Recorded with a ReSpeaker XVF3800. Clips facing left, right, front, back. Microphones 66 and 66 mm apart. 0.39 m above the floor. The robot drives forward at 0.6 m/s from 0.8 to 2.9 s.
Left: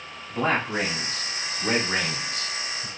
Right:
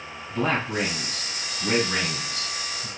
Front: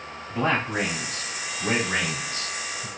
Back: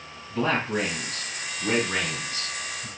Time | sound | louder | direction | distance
0.3 | a man speaking | left 1 dB, front 1 dB | 35° left | 2.5 m